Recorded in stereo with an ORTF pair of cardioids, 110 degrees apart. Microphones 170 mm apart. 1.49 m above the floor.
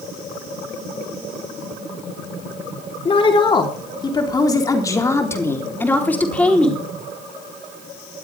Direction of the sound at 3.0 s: 30° left.